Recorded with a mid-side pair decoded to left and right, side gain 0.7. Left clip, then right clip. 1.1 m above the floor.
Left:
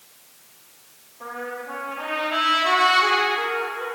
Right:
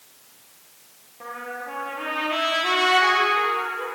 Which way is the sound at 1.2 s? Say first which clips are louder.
Left 1 dB; 25° right.